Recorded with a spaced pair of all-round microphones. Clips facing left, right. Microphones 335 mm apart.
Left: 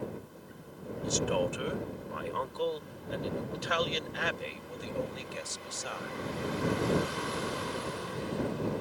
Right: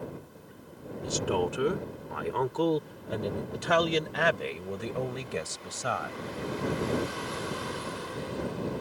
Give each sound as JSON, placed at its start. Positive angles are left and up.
{"t": 1.0, "sound": "a man speaking", "side_deg": -70}